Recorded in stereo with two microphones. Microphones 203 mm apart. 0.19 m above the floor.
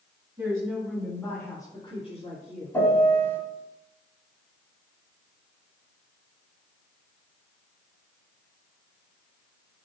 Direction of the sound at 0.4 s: 15° right (ahead or behind).